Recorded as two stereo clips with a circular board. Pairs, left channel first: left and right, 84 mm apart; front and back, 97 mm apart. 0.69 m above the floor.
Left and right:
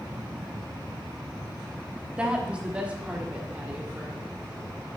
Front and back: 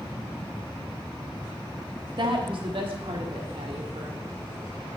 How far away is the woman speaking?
About 0.9 m.